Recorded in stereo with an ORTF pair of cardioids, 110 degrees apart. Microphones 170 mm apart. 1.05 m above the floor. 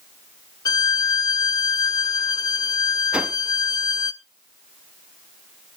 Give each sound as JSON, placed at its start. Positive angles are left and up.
{"t": 0.7, "sound": "a violin", "azimuth_deg": 25, "distance_m": 0.6}
{"t": 3.1, "sound": "a whoosh", "azimuth_deg": -5, "distance_m": 0.8}